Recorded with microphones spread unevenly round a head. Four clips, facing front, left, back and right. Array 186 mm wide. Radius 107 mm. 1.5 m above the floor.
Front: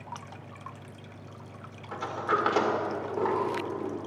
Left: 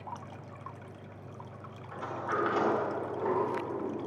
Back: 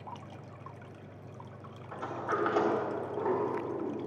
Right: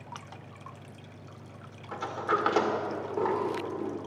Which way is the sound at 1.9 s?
25° right.